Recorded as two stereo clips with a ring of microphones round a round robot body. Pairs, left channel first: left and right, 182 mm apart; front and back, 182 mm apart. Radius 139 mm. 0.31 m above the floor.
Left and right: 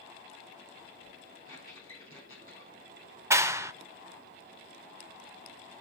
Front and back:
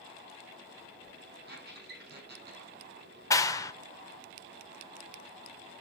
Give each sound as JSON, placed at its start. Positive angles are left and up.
{"t": 1.5, "sound": "a squeak", "azimuth_deg": 150, "distance_m": 8.5}
{"t": 3.3, "sound": "a clap", "azimuth_deg": -40, "distance_m": 0.7}